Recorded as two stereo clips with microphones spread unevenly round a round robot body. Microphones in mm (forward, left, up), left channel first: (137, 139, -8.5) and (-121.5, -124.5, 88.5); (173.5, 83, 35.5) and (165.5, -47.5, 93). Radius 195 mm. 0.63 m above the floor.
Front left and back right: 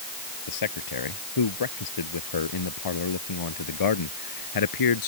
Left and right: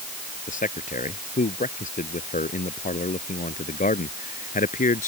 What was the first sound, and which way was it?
A man speaking, 80° left.